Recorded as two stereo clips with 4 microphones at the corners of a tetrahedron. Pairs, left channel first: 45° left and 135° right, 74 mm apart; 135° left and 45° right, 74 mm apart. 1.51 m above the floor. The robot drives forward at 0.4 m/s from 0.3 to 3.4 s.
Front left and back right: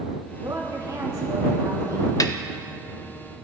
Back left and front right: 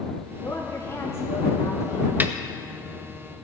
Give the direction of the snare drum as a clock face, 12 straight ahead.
11 o'clock.